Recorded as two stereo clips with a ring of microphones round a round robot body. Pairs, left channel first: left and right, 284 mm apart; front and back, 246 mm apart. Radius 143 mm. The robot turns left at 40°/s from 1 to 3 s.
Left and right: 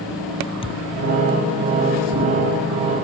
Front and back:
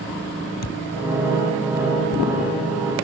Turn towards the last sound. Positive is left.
turn(degrees=-60)